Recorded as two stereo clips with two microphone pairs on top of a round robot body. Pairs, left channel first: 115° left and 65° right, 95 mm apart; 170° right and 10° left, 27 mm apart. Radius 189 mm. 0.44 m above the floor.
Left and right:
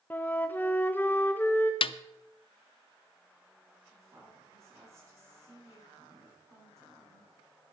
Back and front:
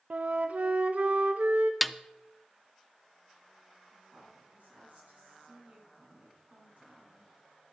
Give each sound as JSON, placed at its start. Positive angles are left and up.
{"t": 0.1, "sound": "a flute", "azimuth_deg": 40, "distance_m": 0.6}
{"t": 1.8, "sound": "a snare drum", "azimuth_deg": 100, "distance_m": 0.5}
{"t": 3.9, "sound": "a woman speaking", "azimuth_deg": -5, "distance_m": 6.0}